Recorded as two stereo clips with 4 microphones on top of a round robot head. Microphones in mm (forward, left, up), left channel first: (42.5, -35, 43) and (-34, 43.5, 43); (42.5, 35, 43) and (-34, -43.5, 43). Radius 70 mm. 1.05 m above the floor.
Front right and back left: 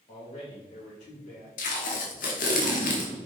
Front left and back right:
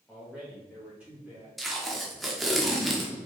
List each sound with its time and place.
0.1 s a man speaking: 35° right, 2 m; by 1.5 s 55° right, 3 m
1.6 s tape being pulled: 45° right, 1.1 m